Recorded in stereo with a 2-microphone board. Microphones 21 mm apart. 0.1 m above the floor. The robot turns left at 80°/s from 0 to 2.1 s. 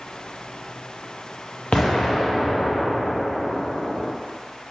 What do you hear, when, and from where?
1.7 s an explosion: 90° left, 1.8 m; by 4.1 s 60° left, 1.8 m